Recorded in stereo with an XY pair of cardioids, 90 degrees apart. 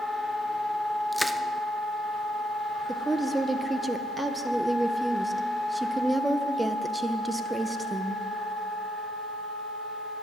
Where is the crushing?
5° right, 0.7 m.